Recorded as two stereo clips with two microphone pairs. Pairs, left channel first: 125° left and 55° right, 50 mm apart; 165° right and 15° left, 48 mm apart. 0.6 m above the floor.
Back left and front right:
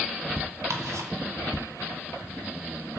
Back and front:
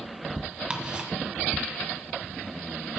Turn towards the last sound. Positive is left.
turn(degrees=-50)